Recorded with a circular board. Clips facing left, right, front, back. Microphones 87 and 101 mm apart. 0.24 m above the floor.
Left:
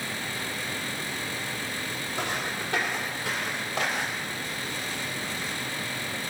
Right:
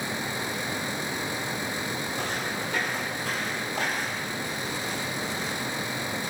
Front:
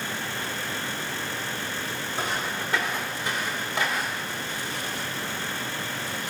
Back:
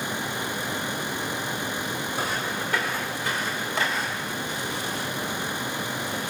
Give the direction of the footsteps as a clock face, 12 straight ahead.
10 o'clock.